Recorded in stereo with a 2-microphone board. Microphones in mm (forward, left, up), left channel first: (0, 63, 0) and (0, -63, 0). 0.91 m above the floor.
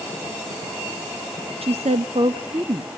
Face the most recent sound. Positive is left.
turn(degrees=-35)  # may be behind; listen again after turning